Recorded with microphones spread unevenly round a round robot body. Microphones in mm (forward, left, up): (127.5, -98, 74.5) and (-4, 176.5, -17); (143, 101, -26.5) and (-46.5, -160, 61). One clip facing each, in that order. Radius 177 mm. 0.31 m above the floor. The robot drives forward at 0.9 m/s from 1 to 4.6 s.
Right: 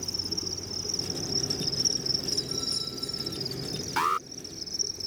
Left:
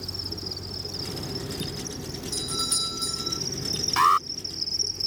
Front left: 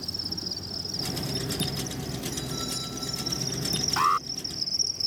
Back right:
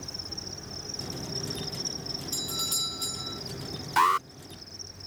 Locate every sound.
0.0 s an insect: 20° left; by 5.1 s 30° left
2.3 s a doorbell: 160° left
4.0 s an alarm: 130° left; by 4.3 s 150° left